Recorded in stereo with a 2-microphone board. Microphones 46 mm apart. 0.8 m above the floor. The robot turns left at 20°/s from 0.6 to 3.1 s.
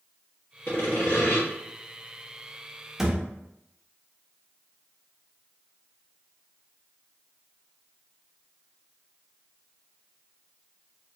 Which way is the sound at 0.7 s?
50° left (ahead or behind).